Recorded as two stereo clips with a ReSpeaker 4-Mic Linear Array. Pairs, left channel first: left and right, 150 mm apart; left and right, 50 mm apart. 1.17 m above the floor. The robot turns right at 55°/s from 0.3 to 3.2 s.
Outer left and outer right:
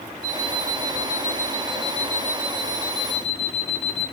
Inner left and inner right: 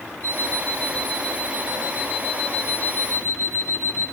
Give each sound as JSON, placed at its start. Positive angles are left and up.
{"t": 0.2, "sound": "an alarm clock", "azimuth_deg": 140, "distance_m": 4.0}